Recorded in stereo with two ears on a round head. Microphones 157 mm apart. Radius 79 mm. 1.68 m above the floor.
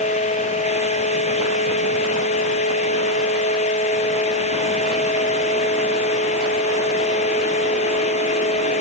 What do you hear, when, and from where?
Only background noise.